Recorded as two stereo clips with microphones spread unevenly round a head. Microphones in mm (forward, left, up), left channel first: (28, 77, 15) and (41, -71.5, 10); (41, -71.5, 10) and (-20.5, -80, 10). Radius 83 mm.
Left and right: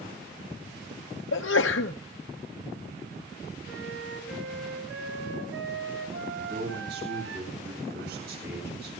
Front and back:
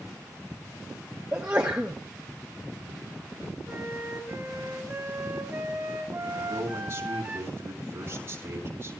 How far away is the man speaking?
About 7 m.